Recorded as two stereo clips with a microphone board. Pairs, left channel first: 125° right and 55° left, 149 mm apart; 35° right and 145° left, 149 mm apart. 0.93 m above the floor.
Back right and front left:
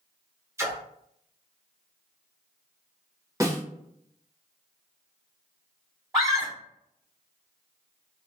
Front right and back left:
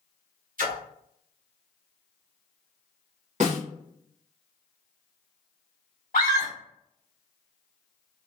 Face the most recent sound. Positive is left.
turn(degrees=-10)